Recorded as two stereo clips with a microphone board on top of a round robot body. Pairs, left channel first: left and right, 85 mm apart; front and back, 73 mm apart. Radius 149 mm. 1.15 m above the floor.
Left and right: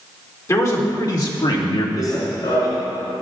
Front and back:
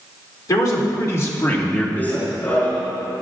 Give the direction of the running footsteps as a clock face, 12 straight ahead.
10 o'clock.